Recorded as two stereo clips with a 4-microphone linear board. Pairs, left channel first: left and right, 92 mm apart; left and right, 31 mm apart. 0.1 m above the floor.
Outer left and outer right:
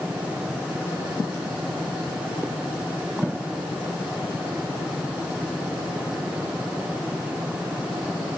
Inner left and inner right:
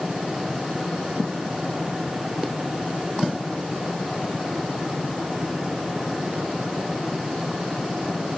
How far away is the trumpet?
I don't hear a trumpet.